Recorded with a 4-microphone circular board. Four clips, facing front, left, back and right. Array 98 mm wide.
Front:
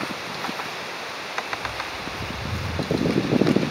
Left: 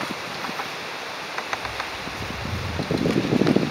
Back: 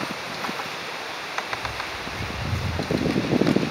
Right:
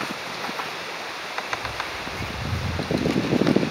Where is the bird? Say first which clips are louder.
Even, even; 130° right, 0.7 m.